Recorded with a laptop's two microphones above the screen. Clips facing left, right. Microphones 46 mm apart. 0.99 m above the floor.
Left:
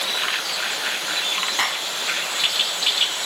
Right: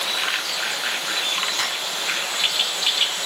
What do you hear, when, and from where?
1.6 s a clap: 25° left (ahead or behind)